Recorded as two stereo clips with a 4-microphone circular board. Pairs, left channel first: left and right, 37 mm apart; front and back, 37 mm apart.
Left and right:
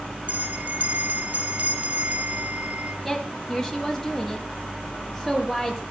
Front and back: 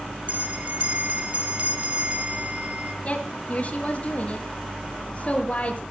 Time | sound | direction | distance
0.3 | a bell | 135° right | 0.7 m
3.0 | a woman speaking | 5° left | 1.3 m